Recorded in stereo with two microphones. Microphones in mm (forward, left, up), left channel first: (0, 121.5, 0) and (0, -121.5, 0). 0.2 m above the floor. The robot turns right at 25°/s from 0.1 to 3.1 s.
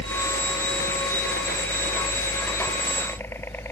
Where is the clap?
I don't hear a clap.